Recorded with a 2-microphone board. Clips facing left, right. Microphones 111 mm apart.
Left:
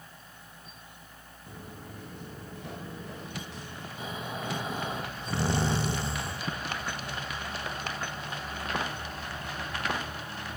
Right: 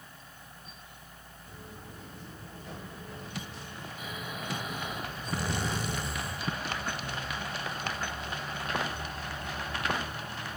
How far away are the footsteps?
About 3.5 m.